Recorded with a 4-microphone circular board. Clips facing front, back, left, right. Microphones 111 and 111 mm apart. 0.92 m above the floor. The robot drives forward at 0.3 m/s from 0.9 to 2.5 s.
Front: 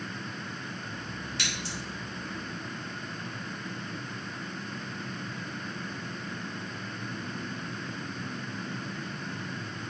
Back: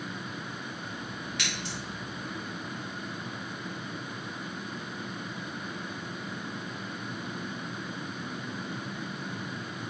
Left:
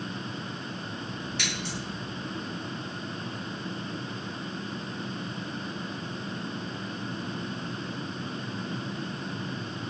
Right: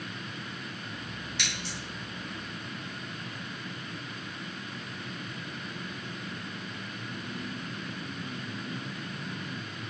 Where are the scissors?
55° left, 1.7 m; by 1.8 s 60° left, 1.6 m.